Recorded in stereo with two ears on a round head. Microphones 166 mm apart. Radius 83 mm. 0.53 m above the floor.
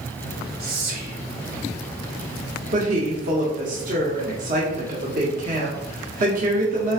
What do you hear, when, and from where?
0.6 s whispering: 55° right (ahead or behind), 1.2 m
2.7 s a woman speaking: 45° right (ahead or behind), 1.1 m